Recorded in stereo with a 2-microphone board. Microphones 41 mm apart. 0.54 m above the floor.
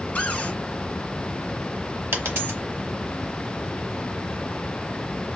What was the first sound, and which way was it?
A cupboard door, 35° left (ahead or behind).